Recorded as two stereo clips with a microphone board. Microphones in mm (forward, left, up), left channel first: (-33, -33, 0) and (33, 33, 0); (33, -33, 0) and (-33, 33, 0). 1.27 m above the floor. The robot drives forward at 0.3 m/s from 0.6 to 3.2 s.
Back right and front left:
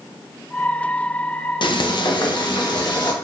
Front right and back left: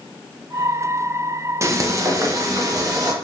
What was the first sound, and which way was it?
Frying, 165° right.